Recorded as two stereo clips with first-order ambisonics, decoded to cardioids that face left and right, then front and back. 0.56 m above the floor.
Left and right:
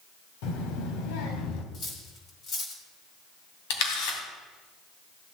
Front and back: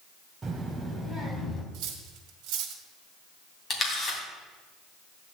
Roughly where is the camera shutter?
Left.